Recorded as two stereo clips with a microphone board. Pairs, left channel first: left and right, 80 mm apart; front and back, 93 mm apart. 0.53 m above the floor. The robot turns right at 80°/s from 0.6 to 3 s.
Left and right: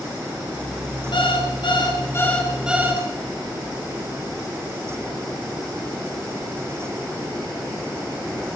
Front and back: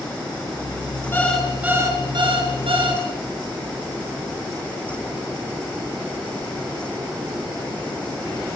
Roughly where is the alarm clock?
Ahead left.